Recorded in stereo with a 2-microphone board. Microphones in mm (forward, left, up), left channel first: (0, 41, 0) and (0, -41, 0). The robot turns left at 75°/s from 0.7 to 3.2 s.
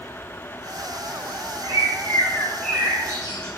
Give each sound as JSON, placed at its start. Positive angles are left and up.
{"t": 1.6, "sound": "a bird", "azimuth_deg": 80, "distance_m": 6.0}